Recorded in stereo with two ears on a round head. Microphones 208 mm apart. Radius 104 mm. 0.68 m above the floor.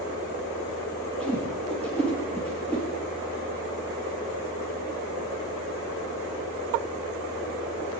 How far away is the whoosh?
About 3.5 m.